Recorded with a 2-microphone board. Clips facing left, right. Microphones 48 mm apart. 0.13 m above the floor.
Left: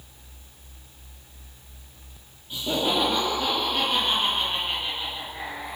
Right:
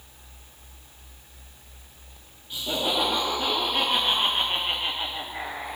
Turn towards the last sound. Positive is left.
turn(degrees=-60)  # may be behind; listen again after turning